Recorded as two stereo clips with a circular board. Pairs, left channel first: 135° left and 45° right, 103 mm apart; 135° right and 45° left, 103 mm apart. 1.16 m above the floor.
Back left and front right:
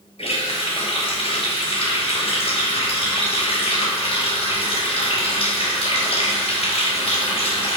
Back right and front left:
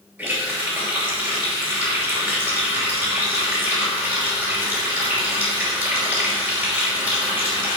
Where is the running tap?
115° left, 4 m.